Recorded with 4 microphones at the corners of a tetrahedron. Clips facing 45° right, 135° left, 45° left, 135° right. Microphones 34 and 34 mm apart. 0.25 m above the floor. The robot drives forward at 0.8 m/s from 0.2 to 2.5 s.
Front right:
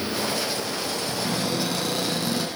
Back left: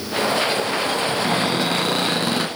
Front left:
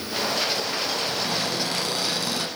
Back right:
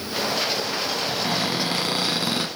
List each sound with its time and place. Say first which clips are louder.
1.1 s a cupboard door: back left 6 dB, back right 2 dB; 160° left, 2 m; by 2.5 s 165° left, 3 m